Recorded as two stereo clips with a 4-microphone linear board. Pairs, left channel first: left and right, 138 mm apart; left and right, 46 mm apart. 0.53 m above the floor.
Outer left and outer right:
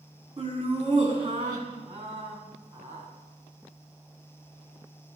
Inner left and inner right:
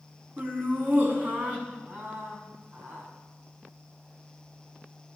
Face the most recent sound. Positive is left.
turn(degrees=-30)  # may be behind; listen again after turning